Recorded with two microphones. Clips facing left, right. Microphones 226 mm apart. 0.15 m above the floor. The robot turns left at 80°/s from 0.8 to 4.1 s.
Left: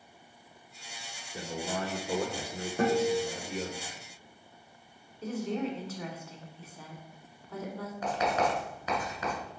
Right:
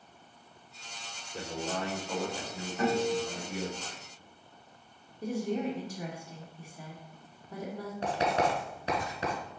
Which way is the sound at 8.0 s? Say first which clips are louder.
Even; 30° right (ahead or behind).